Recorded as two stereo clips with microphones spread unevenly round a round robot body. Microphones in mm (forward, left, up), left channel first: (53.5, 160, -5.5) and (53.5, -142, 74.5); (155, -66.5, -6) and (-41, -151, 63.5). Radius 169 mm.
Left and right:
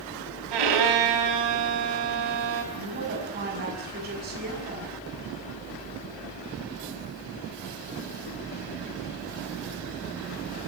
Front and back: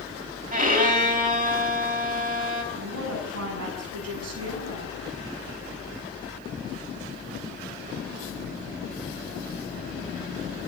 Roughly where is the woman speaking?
Behind right.